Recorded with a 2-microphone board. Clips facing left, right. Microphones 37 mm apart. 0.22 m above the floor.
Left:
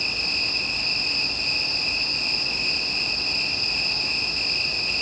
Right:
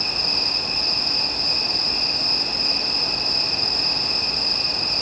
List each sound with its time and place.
0.0 s an insect: 50° left (ahead or behind), 4.5 m